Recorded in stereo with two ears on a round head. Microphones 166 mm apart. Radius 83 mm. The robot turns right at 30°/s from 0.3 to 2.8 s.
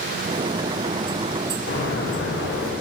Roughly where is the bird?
Ahead left.